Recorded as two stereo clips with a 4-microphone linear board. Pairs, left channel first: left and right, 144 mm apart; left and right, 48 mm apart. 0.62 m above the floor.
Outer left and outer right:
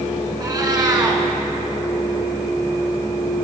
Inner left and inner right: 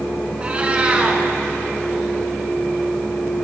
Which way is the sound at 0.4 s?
25° right (ahead or behind).